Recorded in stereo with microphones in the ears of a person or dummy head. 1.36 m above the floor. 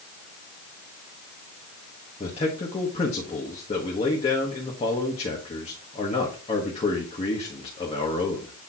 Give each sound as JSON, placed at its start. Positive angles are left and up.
{"t": 2.2, "sound": "a man speaking", "side_deg": 25, "distance_m": 1.4}